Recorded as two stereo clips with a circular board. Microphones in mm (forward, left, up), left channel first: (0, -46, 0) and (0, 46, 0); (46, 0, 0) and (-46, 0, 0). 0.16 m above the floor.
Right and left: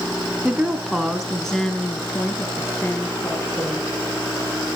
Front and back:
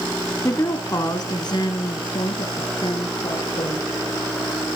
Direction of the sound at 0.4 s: 30° left.